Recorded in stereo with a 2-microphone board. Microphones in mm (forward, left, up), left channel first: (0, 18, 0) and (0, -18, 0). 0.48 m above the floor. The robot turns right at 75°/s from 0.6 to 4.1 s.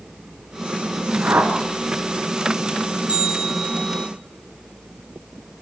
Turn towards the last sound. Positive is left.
turn(degrees=30)